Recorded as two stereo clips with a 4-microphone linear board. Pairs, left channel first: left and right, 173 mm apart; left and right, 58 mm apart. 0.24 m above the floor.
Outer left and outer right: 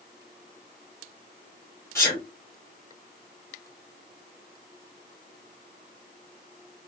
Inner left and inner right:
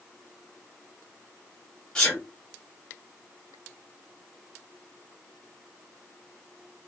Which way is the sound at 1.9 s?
15° left (ahead or behind).